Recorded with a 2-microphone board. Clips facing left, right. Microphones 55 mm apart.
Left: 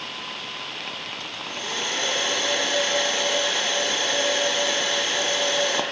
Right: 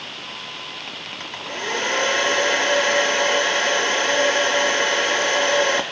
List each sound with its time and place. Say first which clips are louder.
1.2 s a hair dryer: right 4 dB; 60° right (ahead or behind), 1.4 m